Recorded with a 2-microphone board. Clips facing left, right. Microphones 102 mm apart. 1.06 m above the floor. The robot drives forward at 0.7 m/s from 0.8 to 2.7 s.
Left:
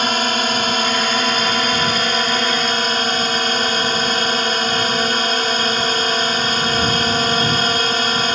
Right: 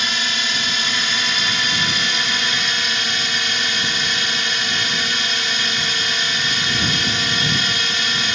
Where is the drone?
50° left (ahead or behind); by 8.4 s 45° left (ahead or behind).